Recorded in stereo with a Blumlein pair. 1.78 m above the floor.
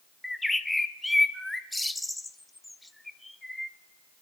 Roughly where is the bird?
Ahead.